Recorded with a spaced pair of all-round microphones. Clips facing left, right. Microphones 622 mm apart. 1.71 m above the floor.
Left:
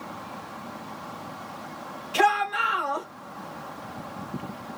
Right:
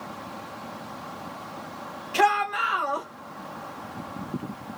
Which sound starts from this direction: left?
A shout, at 2.1 s.